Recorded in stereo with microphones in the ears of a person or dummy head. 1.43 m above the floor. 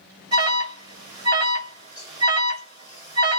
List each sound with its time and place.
0.3 s an alarm: 30° right (ahead or behind), 1.4 m